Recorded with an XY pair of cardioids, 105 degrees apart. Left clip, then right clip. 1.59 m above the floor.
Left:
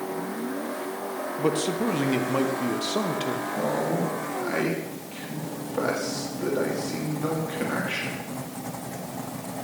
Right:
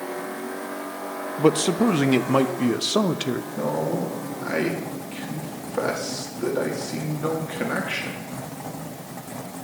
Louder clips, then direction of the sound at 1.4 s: Right 6 dB; 45° right.